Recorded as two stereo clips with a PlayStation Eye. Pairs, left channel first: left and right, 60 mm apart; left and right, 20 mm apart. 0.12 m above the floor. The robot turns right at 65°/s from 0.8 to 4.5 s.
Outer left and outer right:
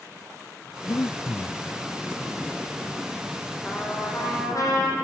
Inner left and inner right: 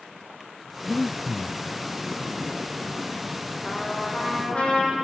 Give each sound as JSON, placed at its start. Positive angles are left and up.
{"t": 0.8, "sound": "breathing", "azimuth_deg": 85, "distance_m": 0.6}
{"t": 3.6, "sound": "a trumpet", "azimuth_deg": 15, "distance_m": 5.0}